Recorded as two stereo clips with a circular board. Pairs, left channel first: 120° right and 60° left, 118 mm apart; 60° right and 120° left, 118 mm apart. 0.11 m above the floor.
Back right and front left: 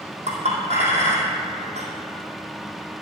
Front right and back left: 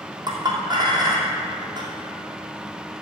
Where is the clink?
70° left, 2 m.